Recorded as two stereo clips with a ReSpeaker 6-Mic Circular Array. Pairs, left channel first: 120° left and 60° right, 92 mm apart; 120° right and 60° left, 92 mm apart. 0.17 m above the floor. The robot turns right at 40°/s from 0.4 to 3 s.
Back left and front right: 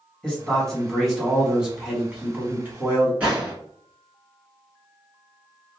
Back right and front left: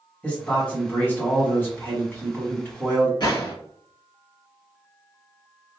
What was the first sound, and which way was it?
A man speaking, 175° right.